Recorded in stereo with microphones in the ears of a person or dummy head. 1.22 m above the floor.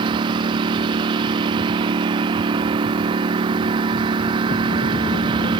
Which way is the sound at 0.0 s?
25° right (ahead or behind).